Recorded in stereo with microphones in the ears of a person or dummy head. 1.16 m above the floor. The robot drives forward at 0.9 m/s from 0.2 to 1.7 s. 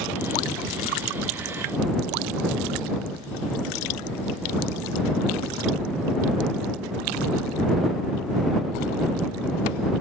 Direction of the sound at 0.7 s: 20° left (ahead or behind).